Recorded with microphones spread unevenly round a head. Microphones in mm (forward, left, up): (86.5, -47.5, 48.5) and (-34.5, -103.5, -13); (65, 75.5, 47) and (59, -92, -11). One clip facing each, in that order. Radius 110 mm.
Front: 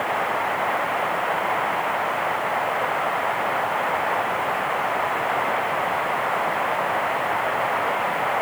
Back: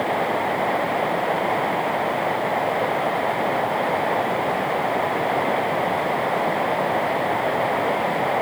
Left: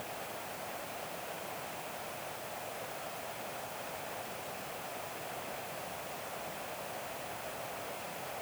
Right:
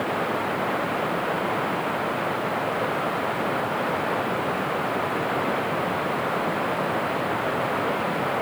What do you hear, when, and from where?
0.0 s running water: 105° right